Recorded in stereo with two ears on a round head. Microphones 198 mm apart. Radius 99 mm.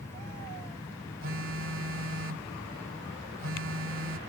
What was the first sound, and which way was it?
A phone buzzing, 65° right (ahead or behind).